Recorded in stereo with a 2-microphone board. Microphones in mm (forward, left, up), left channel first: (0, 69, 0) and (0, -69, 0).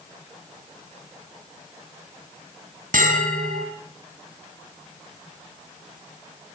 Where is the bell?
80° right, 4.5 m.